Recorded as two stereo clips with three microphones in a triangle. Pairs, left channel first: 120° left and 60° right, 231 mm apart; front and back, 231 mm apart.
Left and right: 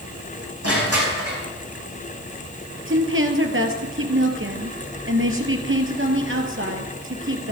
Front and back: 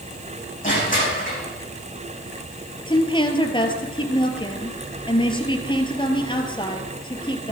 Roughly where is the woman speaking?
Ahead right.